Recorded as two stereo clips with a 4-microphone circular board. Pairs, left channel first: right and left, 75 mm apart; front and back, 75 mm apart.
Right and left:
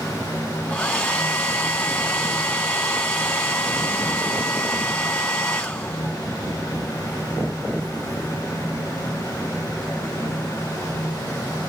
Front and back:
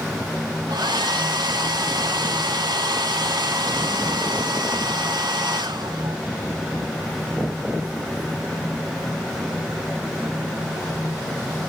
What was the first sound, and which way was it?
A hair dryer, 165° right.